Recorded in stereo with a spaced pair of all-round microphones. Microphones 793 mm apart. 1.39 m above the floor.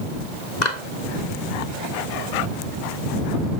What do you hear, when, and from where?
0.6 s a clap: 60° left (ahead or behind)